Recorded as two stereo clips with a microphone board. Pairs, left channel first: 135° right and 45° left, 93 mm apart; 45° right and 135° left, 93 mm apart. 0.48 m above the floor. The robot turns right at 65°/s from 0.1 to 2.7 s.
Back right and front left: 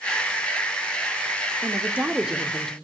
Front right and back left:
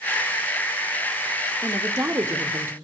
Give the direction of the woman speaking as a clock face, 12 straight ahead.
9 o'clock.